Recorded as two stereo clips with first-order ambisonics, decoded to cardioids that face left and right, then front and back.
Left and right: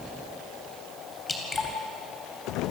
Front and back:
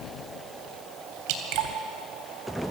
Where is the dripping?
165° left, 3.5 m.